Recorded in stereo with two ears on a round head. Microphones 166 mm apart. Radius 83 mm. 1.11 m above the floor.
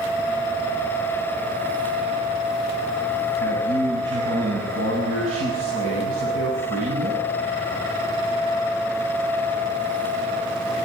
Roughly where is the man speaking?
Right.